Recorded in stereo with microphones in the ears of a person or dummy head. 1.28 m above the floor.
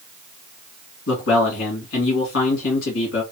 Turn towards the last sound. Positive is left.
turn(degrees=75)  # may be behind; listen again after turning